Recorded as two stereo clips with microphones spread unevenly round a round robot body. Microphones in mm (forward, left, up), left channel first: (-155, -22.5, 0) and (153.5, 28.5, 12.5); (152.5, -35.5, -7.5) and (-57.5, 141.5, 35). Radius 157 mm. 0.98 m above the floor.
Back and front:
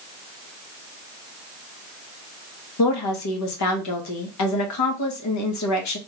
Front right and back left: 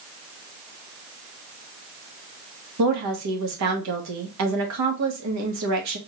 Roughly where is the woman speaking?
Behind.